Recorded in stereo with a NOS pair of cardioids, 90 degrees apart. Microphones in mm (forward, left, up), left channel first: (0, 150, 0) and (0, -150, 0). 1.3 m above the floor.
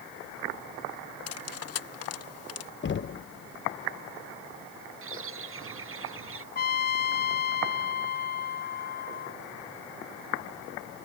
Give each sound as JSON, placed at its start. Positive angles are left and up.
{"t": 1.3, "sound": "cutlery clinking", "azimuth_deg": 55}
{"t": 2.8, "sound": "knocking", "azimuth_deg": 40}
{"t": 5.0, "sound": "a bird", "azimuth_deg": -45}
{"t": 6.5, "sound": "a trumpet", "azimuth_deg": 30}